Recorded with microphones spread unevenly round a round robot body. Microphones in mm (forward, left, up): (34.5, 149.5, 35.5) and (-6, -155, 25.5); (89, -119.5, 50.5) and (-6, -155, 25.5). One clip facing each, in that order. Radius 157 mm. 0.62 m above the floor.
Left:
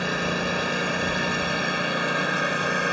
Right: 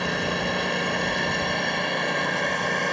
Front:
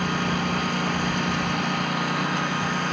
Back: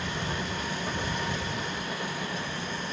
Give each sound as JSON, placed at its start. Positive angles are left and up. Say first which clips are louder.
{"t": 0.0, "sound": "a lawn mower", "louder": "even, front 8 dB", "azimuth_deg": -5}